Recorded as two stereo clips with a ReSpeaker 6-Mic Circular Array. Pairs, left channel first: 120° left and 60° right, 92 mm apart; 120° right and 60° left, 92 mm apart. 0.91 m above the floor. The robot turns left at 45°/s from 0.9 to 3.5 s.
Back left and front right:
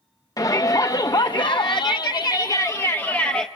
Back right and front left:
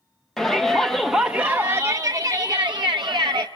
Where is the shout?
155° left, 0.7 m; by 3.5 s 40° left, 0.7 m.